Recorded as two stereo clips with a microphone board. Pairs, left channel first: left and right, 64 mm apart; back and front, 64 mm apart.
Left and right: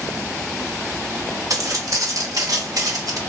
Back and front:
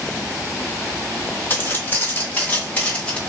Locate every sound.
1.5 s footsteps: 120° right, 2.5 m; by 3.2 s 105° right, 1.7 m